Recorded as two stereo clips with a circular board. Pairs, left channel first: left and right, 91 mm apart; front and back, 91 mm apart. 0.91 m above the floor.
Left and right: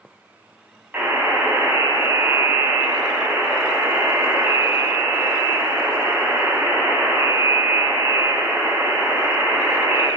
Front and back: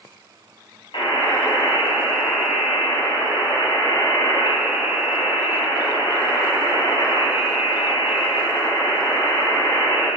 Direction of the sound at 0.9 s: 20° right.